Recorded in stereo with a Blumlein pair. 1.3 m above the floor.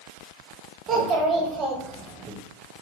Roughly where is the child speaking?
Ahead right.